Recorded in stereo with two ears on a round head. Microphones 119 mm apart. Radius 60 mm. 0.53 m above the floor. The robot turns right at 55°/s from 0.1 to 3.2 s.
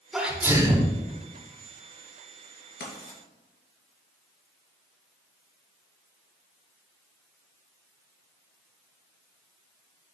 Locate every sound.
0.1 s a sneeze: straight behind, 1.5 m; by 0.9 s 135° right, 1.5 m
2.8 s writing: 85° left, 3 m; by 3.2 s 70° left (ahead or behind), 3 m